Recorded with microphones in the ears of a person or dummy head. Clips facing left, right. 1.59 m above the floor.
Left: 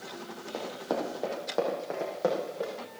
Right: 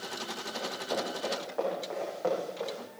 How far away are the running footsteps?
About 3 m.